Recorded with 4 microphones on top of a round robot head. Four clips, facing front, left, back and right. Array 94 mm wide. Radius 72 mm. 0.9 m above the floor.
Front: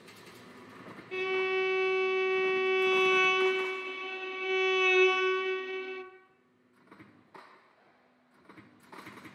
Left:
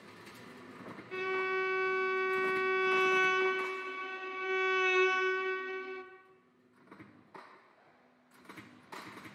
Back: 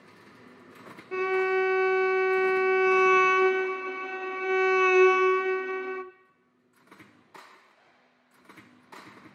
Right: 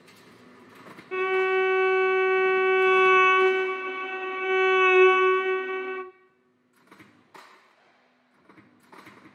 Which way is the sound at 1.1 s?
125° right.